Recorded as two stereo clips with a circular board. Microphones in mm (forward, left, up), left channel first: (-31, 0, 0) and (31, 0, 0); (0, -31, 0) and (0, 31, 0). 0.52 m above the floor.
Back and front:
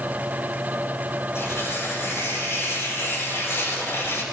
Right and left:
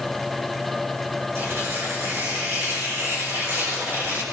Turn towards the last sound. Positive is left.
turn(degrees=135)